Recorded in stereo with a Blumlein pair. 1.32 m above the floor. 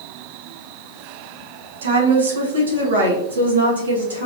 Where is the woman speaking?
65° right, 1.0 m; by 4.3 s 75° right, 2 m.